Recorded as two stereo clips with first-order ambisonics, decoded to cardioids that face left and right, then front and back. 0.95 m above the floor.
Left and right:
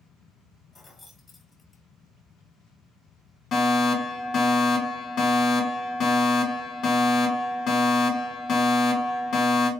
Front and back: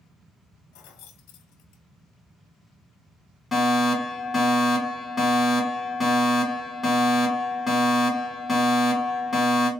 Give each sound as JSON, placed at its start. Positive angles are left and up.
{"t": 0.7, "sound": "keys jangling", "azimuth_deg": 15, "distance_m": 0.9}
{"t": 3.5, "sound": "a fire alarm", "azimuth_deg": 90, "distance_m": 1.2}